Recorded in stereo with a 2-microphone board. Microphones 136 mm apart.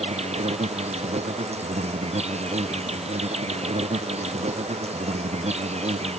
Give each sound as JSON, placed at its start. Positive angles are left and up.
{"t": 0.0, "sound": "an insect", "side_deg": -55}